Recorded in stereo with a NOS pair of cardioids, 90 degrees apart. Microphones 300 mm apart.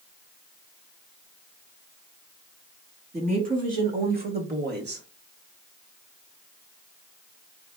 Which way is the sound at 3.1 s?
25° right.